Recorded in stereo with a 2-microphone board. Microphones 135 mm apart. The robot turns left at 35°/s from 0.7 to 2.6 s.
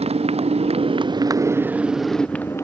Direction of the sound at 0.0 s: 130° right.